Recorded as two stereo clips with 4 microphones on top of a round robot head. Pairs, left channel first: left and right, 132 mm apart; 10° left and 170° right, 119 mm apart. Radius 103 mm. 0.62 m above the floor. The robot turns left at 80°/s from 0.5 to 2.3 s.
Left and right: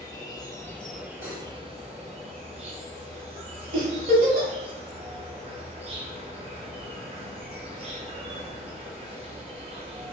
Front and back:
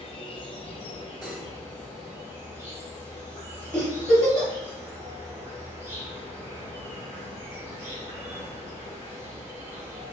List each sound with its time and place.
0.0 s an insect: 35° left, 0.7 m; by 10.1 s 110° right, 0.7 m
1.2 s cutlery clinking: 110° left, 1.8 m; by 1.4 s 90° left, 1.8 m
3.7 s a giggle: 75° right, 1.0 m